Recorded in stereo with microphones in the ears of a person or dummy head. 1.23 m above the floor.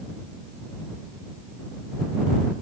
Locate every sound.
Only background noise.